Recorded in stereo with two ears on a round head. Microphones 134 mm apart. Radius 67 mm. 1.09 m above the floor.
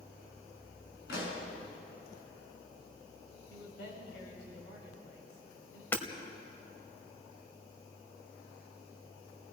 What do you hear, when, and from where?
1.1 s a pop: 80° left, 5.5 m
3.5 s a man speaking: 85° left, 6.5 m
5.9 s hammering: 15° left (ahead or behind), 1.4 m